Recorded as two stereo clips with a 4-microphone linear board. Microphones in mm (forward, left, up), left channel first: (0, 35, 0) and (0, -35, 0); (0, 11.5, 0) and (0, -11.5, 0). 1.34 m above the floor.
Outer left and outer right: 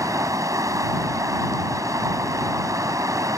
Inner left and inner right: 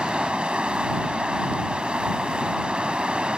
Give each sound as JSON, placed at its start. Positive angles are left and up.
{"t": 0.0, "sound": "running water", "side_deg": -50}